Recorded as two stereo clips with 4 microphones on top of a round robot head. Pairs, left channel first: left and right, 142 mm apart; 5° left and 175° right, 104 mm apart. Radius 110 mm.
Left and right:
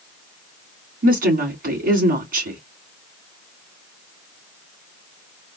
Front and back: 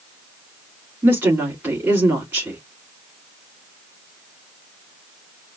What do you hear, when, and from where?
1.0 s a woman speaking: 95° right, 2.5 m